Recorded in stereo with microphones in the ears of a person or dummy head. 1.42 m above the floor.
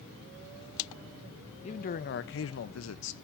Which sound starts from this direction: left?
A man speaking, at 1.6 s.